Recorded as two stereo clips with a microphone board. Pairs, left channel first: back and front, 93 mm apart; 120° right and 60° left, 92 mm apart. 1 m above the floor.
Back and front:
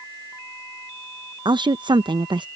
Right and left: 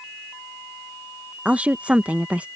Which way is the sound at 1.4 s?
10° right.